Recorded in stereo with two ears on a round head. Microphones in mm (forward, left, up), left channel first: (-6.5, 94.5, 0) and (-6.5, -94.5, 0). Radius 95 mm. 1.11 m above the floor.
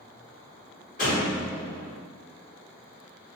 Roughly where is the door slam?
Left.